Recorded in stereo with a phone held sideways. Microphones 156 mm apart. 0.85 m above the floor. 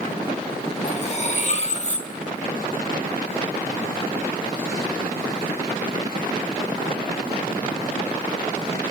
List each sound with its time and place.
0.8 s cutlery clinking: 45° left (ahead or behind), 0.9 m